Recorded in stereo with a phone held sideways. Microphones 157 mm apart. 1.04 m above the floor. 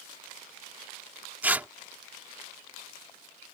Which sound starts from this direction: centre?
Tearing paper, at 1.4 s.